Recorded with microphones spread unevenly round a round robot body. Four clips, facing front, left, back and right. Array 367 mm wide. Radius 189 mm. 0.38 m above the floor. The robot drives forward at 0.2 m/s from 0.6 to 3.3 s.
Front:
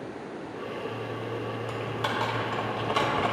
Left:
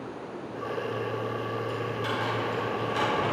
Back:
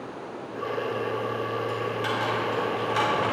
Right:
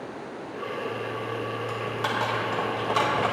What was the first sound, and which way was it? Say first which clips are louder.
Typing on a keyboard: right 2 dB, back 3 dB; 70° right.